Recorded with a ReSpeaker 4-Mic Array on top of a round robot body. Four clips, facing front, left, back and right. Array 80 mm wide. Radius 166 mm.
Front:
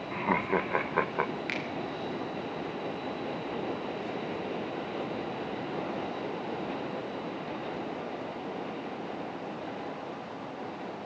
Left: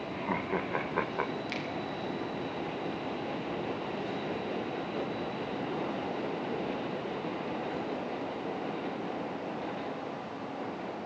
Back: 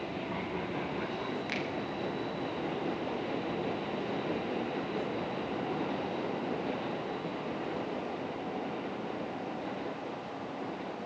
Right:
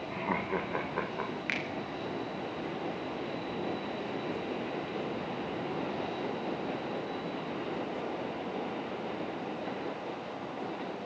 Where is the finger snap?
75° right, 4.5 m.